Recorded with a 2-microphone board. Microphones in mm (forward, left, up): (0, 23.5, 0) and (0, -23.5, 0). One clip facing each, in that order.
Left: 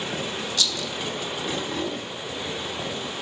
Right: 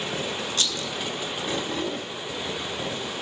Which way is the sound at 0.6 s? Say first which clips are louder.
Left 3 dB; 40° right (ahead or behind).